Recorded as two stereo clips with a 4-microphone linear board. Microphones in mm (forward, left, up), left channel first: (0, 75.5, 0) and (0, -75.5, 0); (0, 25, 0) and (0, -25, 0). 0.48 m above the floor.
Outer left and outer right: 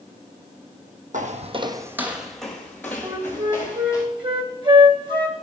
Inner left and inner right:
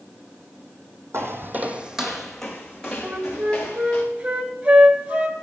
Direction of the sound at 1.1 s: 65° right (ahead or behind).